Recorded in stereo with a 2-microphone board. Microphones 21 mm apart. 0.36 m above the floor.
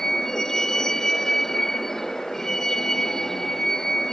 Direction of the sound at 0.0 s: 25° left (ahead or behind).